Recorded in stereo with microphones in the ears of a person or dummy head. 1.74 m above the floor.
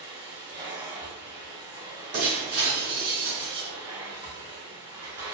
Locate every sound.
0.0 s a machine running: 15° right (ahead or behind), 0.7 m
2.1 s breaking glass: 40° right (ahead or behind), 1.4 m